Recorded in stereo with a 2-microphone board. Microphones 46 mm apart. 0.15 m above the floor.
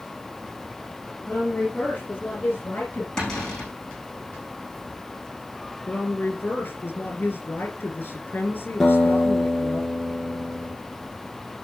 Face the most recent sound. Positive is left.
turn(degrees=5)  # may be behind; listen again after turning